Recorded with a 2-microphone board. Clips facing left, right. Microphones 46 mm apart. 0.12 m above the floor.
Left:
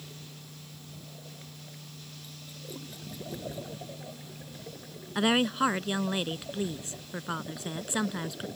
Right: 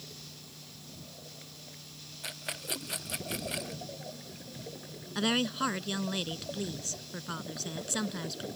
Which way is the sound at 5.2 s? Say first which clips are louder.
Left 4 dB; 20° left (ahead or behind).